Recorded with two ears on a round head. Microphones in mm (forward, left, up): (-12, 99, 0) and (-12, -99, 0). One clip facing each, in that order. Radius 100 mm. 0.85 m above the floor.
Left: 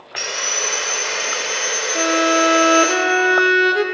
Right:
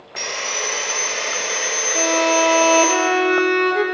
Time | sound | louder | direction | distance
0.2 | sawing | even | 10° left (ahead or behind) | 1.2 m
1.9 | a violin | left 1 dB | 10° left (ahead or behind) | 0.6 m